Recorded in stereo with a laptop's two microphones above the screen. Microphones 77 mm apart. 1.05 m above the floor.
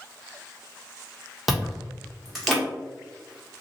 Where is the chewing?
Centre (ahead or behind), 1.0 m.